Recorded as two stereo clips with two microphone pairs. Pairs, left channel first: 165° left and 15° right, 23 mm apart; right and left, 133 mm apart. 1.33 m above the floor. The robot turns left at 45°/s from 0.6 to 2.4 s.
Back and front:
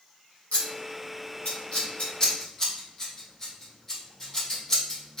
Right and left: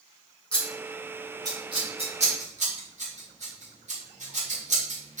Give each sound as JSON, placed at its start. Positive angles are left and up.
{"t": 0.5, "sound": "scissors", "azimuth_deg": -175, "distance_m": 1.9}